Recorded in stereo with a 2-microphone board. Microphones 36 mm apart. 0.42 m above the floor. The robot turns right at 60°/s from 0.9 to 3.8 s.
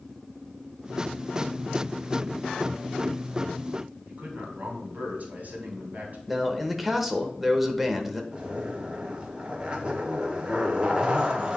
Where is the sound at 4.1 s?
50° right (ahead or behind), 3 m.